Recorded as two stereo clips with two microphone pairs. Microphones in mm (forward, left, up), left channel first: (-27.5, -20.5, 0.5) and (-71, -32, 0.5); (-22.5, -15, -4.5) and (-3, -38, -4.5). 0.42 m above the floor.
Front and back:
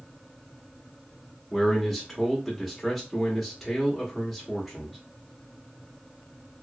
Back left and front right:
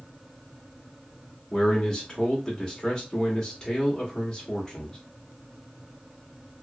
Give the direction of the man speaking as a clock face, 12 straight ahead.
8 o'clock.